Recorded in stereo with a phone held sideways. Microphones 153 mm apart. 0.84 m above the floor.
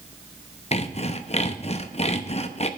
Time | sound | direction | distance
0.7 | sawing | 45° left (ahead or behind) | 0.6 m